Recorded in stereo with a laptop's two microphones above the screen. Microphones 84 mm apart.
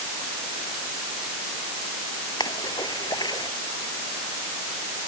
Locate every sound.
2.4 s a splash: 55° left (ahead or behind)